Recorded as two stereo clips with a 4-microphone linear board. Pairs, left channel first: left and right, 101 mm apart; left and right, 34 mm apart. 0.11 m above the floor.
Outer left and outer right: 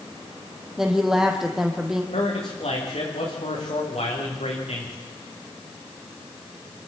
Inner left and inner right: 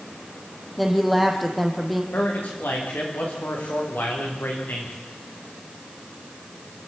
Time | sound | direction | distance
0.8 | a woman speaking | 5° right (ahead or behind) | 4 m
2.1 | a man speaking | 75° left (ahead or behind) | 10 m